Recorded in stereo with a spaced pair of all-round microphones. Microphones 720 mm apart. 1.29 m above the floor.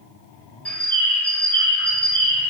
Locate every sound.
0.7 s a bird: centre (ahead or behind), 0.6 m